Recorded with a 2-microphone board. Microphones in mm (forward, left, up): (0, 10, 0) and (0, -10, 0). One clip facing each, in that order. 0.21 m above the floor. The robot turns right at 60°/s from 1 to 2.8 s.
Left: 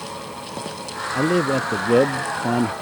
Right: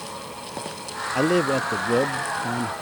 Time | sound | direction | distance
1.1 | a man speaking | 30° right | ?